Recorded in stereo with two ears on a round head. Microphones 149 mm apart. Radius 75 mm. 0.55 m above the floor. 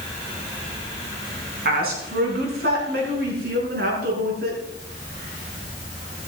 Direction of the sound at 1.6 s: 65° right (ahead or behind).